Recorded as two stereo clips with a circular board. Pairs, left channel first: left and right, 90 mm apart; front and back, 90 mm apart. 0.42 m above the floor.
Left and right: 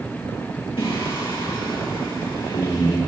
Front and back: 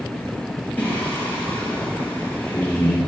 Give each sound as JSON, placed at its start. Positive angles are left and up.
{"t": 0.8, "sound": "singing", "azimuth_deg": 70, "distance_m": 8.0}